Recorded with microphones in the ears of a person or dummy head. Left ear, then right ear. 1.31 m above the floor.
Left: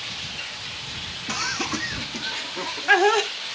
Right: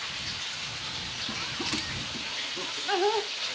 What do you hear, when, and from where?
1.3 s laughter: 65° left (ahead or behind); by 3.3 s 60° left (ahead or behind)